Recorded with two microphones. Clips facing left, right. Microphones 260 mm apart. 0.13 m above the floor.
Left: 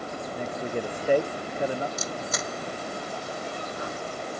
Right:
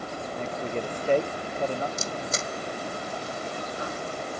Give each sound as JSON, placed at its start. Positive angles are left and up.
{"t": 0.3, "sound": "a man speaking", "side_deg": 10}
{"t": 2.0, "sound": "a camera shutter", "side_deg": -30}